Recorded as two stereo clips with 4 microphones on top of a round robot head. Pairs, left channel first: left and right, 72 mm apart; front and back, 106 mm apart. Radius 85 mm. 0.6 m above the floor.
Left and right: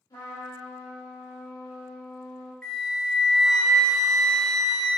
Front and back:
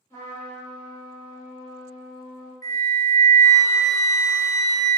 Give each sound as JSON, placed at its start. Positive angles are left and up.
{"t": 0.1, "sound": "a trumpet", "azimuth_deg": 65, "distance_m": 1.3}
{"t": 2.6, "sound": "a flute", "azimuth_deg": 15, "distance_m": 0.7}